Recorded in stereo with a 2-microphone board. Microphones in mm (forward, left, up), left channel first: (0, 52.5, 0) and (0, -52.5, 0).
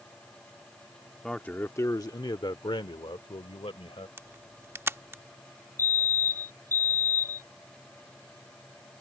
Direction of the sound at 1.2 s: 5° left (ahead or behind).